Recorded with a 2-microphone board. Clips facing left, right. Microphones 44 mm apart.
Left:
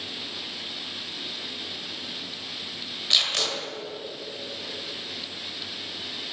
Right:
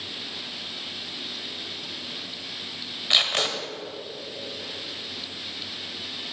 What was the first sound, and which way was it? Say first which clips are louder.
Tape being pulled: right 2 dB; 20° right (ahead or behind).